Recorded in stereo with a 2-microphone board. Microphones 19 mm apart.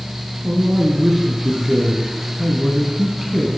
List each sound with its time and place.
0.4 s a man speaking: 10° right (ahead or behind), 1.6 m